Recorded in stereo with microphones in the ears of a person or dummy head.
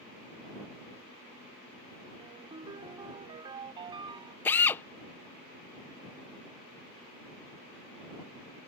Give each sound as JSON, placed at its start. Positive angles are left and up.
{"t": 2.2, "sound": "a ringtone", "side_deg": -30}
{"t": 4.5, "sound": "a drill", "side_deg": 15}